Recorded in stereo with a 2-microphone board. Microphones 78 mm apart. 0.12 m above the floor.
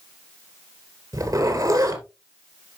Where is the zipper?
50° right (ahead or behind), 2.5 m.